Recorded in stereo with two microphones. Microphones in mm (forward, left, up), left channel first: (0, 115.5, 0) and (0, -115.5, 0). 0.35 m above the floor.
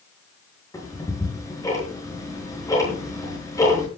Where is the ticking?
15° left (ahead or behind), 6.5 m.